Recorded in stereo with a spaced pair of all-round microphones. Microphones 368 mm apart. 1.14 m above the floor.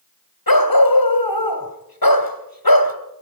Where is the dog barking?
60° left (ahead or behind), 2.0 m.